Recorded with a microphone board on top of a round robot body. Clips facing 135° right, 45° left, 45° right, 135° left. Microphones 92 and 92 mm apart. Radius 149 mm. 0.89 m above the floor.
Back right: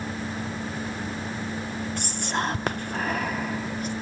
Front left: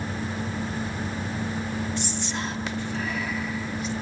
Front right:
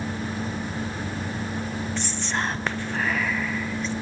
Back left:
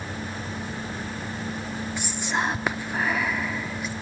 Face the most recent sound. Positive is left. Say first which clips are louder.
# back right 2 dB, back left 3 dB
turn(degrees=-150)